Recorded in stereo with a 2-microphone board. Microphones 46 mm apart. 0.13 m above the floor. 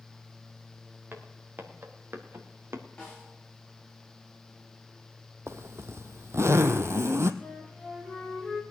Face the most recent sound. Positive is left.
turn(degrees=5)  # may be behind; listen again after turning